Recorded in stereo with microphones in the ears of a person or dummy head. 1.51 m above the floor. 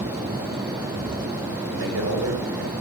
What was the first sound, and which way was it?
A man speaking, 80° right.